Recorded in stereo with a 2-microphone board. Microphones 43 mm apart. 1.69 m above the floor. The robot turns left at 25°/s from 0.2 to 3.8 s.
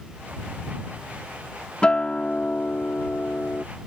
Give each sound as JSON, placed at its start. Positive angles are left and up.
{"t": 1.8, "sound": "a guitar", "azimuth_deg": 150}